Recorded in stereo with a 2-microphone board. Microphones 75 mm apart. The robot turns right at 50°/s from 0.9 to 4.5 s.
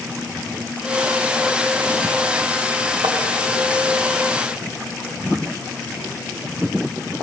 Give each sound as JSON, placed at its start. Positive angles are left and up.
{"t": 3.0, "sound": "tapping", "side_deg": -65, "distance_m": 1.5}